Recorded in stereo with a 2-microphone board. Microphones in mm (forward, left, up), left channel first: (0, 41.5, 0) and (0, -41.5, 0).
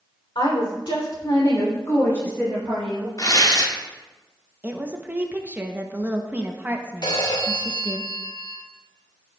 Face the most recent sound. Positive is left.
turn(degrees=85)